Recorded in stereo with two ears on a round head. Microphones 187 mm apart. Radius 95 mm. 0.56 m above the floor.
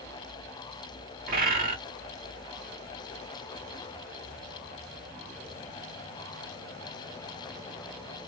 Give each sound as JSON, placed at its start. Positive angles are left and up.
{"t": 1.3, "sound": "a bird", "side_deg": -45, "distance_m": 1.1}